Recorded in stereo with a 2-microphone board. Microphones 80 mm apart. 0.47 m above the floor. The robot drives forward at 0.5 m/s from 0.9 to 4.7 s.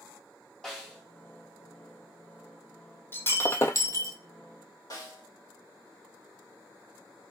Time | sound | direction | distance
0.6 | a snare drum | 10° left (ahead or behind) | 2 m
3.1 | breaking glass | 25° left (ahead or behind) | 0.8 m
4.9 | a snare drum | 45° left (ahead or behind) | 1.6 m